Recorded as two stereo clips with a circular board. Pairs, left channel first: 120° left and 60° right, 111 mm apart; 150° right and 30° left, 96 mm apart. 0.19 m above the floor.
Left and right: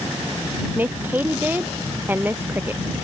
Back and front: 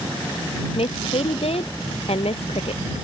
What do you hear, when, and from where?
0.8 s a woman speaking: 135° right